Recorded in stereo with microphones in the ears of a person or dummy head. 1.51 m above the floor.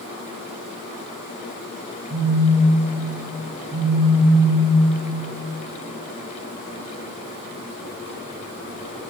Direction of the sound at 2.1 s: 5° left (ahead or behind).